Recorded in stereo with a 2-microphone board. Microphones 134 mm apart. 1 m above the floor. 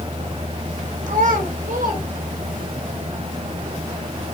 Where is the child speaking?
65° right (ahead or behind), 2 m; by 2.8 s 85° right, 3.5 m.